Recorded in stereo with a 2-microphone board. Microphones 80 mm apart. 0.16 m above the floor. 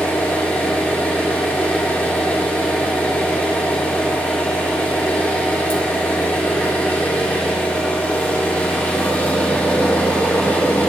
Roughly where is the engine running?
Left.